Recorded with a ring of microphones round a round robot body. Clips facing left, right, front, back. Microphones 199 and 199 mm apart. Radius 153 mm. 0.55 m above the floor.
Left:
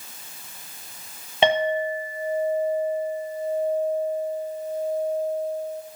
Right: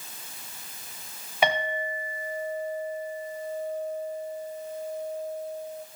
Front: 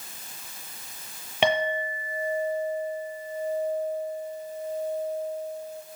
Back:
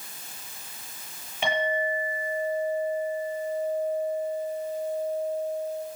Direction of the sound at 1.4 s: 25° left.